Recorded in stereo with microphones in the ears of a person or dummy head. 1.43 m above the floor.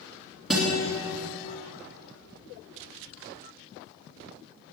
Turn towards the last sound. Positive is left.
turn(degrees=5)  # may be behind; listen again after turning